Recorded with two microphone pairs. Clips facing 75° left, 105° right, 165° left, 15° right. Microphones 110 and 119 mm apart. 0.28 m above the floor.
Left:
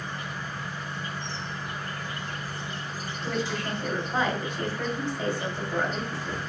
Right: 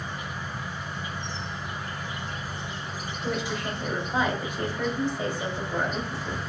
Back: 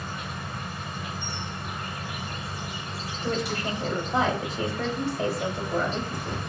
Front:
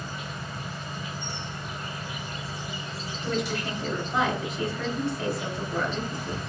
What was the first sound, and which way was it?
An insect, straight behind.